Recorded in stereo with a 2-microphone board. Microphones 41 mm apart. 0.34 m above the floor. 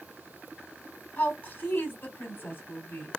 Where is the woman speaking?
45° left (ahead or behind), 2.5 m.